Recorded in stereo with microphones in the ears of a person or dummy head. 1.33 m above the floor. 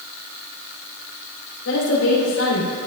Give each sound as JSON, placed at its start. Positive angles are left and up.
{"t": 1.6, "sound": "a woman speaking", "side_deg": 75, "distance_m": 4.0}